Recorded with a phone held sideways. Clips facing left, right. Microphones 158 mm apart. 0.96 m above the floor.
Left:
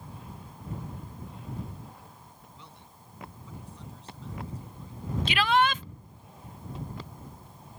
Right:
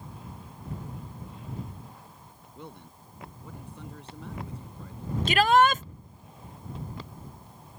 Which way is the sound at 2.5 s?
55° right (ahead or behind).